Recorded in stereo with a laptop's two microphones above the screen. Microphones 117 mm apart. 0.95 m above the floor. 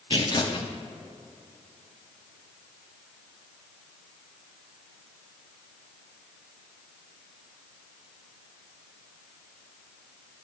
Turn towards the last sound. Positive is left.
turn(degrees=45)  # may be behind; listen again after turning